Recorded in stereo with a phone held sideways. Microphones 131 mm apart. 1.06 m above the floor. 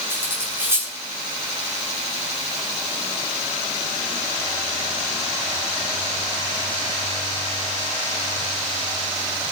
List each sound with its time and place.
0.1 s cutlery clinking: 20° right (ahead or behind), 7.5 m